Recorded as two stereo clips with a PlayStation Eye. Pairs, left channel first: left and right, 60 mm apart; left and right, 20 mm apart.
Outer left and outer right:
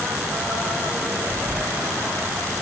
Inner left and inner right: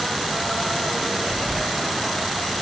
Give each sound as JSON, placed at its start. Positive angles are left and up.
{"t": 1.2, "sound": "whispering", "side_deg": -50, "distance_m": 3.5}